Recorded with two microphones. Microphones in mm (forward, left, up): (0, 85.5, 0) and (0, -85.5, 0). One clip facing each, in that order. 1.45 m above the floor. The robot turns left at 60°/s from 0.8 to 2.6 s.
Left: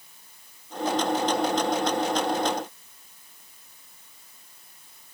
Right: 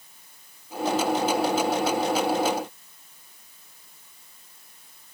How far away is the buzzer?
No buzzer in this recording.